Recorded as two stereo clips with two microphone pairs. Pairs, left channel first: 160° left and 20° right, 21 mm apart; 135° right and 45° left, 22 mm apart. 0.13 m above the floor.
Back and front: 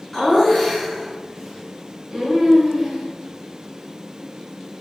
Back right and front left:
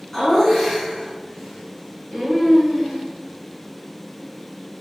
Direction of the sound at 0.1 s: 170° right.